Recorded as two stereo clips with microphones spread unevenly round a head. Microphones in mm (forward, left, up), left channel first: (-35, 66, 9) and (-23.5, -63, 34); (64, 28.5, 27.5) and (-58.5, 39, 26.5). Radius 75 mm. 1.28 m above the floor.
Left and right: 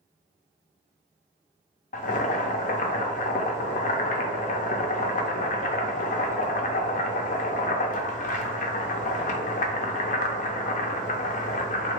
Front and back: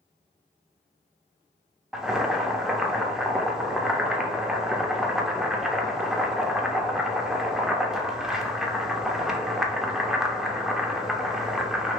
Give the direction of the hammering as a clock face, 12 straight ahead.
No hammering in this recording.